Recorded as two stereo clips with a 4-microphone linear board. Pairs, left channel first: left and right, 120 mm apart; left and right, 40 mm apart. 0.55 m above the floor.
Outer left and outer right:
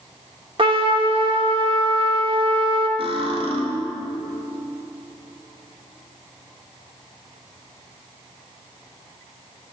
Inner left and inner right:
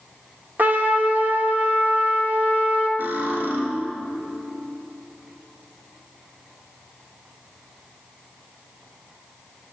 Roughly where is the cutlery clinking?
Right.